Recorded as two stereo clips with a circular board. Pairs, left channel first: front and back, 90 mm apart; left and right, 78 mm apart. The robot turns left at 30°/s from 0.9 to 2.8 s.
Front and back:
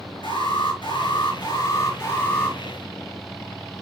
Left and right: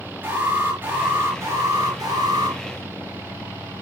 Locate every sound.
0.2 s an alarm: 20° right, 7 m; by 2.6 s 75° right, 7 m